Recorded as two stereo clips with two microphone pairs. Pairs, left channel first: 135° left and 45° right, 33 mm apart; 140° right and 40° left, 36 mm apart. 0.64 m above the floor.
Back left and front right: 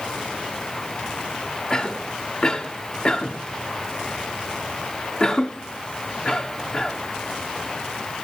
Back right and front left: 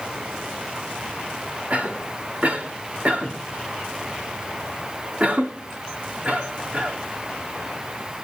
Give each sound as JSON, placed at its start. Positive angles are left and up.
{"t": 1.7, "sound": "a cough", "azimuth_deg": 75, "distance_m": 1.6}